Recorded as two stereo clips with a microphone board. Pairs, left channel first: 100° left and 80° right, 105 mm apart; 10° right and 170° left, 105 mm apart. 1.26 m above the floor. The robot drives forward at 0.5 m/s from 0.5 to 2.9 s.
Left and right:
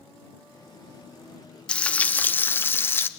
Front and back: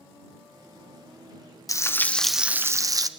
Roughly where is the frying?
Ahead left.